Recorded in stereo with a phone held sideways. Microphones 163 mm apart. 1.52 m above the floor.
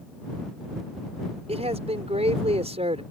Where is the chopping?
No chopping in this recording.